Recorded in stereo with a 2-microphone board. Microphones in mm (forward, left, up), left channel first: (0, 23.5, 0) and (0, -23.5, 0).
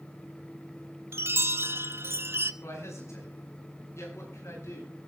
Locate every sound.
1.1 s a chime: 55° right (ahead or behind), 0.9 m
2.6 s a man speaking: 75° left (ahead or behind), 9 m